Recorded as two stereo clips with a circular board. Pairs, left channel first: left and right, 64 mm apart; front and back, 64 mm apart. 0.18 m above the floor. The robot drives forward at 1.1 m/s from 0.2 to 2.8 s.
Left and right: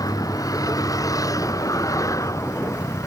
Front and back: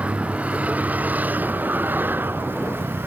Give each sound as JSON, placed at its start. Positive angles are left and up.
{"t": 0.0, "sound": "a vehicle", "azimuth_deg": 110}